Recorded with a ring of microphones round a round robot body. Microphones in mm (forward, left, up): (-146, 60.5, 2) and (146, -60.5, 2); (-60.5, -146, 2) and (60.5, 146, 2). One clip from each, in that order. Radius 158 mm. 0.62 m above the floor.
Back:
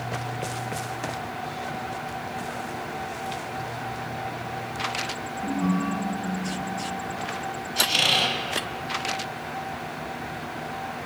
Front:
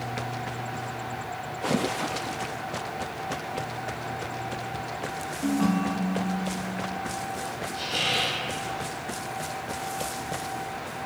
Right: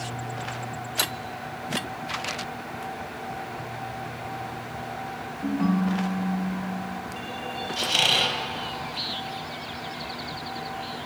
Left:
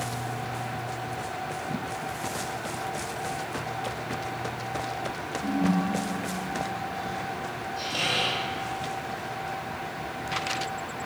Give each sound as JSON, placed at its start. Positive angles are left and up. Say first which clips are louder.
{"t": 5.4, "sound": "a ringtone", "louder": "front 1 dB, right 1 dB", "azimuth_deg": -60, "distance_m": 0.9}
{"t": 7.8, "sound": "a squeak", "louder": "back 6 dB, right 6 dB", "azimuth_deg": -150, "distance_m": 1.1}